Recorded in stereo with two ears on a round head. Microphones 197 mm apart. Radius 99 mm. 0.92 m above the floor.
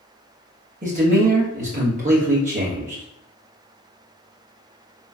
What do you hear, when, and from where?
0.8 s a man speaking: 35° right (ahead or behind), 1.2 m